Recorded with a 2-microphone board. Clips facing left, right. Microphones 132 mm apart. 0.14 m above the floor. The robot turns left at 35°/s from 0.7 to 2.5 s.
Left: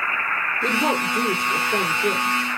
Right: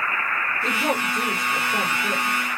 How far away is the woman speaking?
About 2.5 m.